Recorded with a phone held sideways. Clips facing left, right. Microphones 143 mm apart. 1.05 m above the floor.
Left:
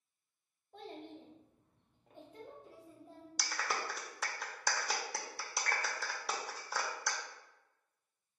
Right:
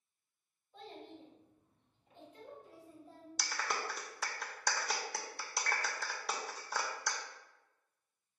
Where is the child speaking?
60° left (ahead or behind), 1.2 m; by 3.3 s 15° left (ahead or behind), 1.4 m.